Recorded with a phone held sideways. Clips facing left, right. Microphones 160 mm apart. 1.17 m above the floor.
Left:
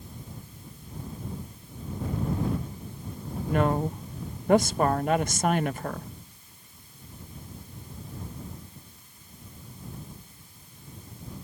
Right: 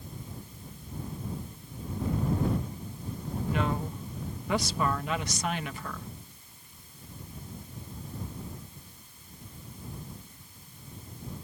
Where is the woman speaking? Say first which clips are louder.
Left 7 dB; 50° left (ahead or behind).